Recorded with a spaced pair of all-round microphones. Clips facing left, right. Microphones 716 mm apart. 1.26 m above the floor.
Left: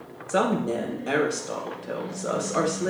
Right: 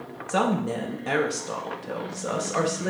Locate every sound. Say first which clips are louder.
0.3 s a woman speaking: left 1 dB; 30° right (ahead or behind), 1.2 m